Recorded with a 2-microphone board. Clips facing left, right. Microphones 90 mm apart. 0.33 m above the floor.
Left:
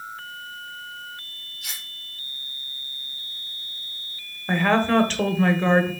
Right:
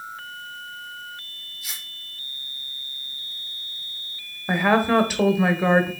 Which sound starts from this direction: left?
Cutlery clinking, at 1.6 s.